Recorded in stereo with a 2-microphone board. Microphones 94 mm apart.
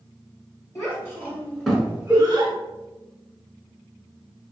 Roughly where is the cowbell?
Centre.